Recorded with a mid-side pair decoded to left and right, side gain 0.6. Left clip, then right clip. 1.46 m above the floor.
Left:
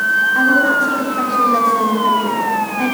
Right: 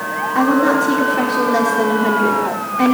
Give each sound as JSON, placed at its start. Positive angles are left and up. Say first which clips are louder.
{"t": 0.3, "sound": "a woman speaking", "louder": "left 2 dB", "azimuth_deg": -35, "distance_m": 4.5}